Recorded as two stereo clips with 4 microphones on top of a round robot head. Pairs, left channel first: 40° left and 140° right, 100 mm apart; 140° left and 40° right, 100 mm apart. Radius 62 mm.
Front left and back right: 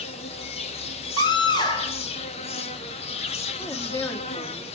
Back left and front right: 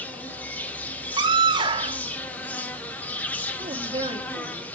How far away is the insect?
About 1.2 m.